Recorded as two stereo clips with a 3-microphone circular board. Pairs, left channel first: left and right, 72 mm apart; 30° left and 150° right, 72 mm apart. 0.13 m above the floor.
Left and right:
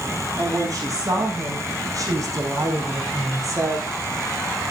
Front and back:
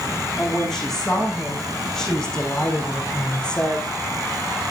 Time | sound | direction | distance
0.4 | a woman speaking | 55° right | 8 m